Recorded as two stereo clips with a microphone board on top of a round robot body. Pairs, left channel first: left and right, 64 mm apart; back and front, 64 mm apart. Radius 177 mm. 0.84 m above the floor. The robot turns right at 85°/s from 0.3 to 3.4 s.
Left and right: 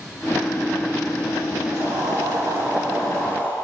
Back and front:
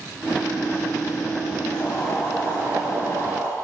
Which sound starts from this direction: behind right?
Boiling, at 1.7 s.